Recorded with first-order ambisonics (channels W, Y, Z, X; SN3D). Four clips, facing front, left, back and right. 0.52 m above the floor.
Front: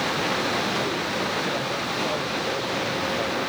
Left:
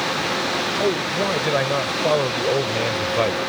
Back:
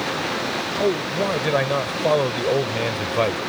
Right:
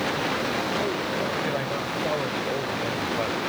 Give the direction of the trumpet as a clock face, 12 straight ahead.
No trumpet in this recording.